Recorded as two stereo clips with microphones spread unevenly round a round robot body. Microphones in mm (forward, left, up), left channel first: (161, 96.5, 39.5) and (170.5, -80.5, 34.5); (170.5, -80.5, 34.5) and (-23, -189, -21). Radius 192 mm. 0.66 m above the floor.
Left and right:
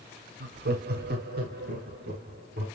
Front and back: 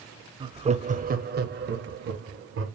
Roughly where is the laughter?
Right.